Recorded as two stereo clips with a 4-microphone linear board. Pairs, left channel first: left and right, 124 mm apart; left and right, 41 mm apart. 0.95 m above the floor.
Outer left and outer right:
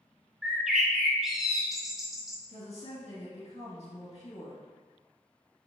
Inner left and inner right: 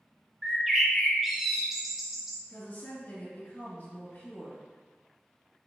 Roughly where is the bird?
Centre.